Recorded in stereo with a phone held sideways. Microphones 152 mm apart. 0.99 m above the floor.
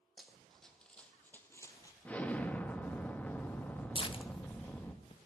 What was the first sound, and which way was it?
Running footsteps, centre (ahead or behind).